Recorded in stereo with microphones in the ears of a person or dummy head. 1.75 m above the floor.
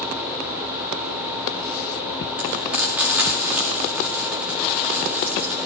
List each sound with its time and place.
2.4 s frying: 5° right (ahead or behind), 2 m